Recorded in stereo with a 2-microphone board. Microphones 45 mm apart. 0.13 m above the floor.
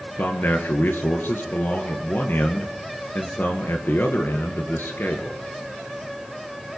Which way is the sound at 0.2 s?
50° left (ahead or behind).